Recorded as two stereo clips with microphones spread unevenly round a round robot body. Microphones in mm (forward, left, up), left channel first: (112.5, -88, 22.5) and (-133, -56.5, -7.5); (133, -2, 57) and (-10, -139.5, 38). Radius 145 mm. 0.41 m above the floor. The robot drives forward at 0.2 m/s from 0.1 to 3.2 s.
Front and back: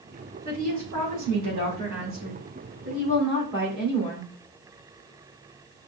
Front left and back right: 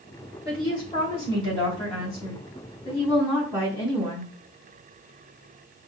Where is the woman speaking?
115° left, 3 m; by 4.3 s 120° left, 3 m.